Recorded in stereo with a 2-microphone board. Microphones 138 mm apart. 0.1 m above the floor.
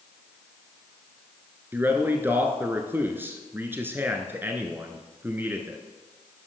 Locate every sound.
1.7 s a man speaking: 15° right (ahead or behind), 1.1 m